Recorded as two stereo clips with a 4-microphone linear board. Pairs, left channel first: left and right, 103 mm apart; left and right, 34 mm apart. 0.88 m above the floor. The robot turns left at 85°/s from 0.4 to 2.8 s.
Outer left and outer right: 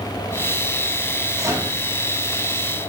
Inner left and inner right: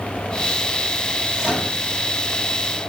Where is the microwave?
140° right, 1.8 m; by 1.7 s 170° right, 1.8 m.